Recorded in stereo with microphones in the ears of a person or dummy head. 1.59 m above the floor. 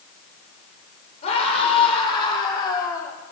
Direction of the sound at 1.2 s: 40° left (ahead or behind).